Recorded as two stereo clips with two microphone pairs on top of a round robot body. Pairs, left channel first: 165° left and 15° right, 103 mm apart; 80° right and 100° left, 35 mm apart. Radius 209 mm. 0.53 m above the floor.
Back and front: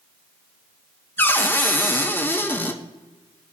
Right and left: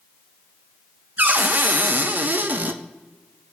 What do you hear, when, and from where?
1.2 s a cupboard door: 95° left, 0.9 m